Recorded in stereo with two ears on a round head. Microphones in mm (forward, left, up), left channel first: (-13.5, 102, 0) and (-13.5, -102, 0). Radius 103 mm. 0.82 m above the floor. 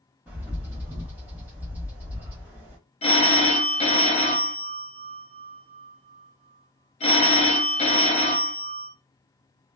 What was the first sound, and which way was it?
A bird, 10° right (ahead or behind).